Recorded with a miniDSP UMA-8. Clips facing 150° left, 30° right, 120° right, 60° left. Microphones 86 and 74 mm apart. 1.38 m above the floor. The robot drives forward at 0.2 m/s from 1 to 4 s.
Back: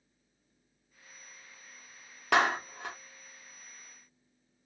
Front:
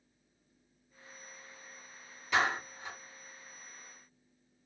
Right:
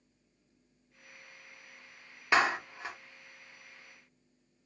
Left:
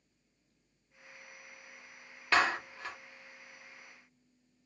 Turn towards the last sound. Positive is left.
turn(degrees=170)